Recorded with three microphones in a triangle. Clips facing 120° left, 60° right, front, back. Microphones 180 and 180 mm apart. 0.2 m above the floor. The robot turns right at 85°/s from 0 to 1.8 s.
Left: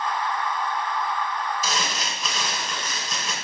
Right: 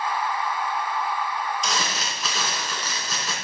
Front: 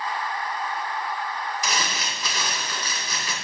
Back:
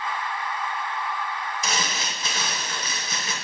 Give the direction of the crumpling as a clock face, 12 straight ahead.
5 o'clock.